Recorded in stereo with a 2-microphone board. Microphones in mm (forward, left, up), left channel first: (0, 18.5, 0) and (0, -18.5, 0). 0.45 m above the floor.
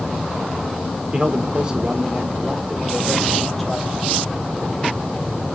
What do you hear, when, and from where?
1.1 s a man speaking: 25° right (ahead or behind), 1.1 m; by 3.9 s centre (ahead or behind), 1.9 m